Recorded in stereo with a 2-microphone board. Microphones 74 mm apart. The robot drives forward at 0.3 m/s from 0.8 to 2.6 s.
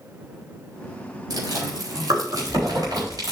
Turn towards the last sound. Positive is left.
turn(degrees=-60)  # may be behind; listen again after turning